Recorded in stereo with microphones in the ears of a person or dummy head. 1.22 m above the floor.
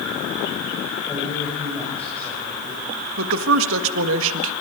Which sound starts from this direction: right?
A woman speaking, at 3.2 s.